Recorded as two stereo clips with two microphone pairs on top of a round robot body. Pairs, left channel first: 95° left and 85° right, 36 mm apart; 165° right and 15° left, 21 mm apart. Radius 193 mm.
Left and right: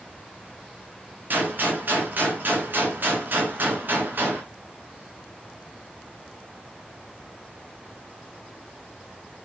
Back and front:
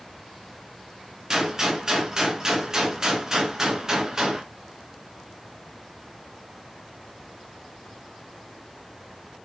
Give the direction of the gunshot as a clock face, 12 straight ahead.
2 o'clock.